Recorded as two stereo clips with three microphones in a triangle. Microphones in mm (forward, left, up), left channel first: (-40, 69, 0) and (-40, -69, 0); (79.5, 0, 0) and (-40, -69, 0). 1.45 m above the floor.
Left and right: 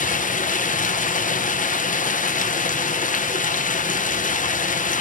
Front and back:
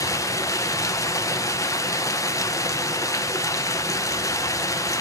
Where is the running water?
95° left, 0.8 m.